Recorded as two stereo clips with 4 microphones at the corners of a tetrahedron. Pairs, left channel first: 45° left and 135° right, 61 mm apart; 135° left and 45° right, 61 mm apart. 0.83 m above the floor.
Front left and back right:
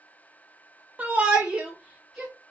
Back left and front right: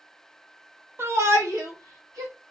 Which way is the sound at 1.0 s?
80° right.